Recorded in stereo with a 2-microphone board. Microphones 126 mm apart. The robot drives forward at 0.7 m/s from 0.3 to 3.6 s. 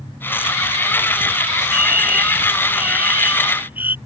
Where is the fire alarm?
15° right (ahead or behind).